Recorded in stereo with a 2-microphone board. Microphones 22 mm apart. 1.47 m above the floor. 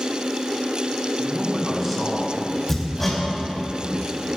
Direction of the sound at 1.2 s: 5° right (ahead or behind).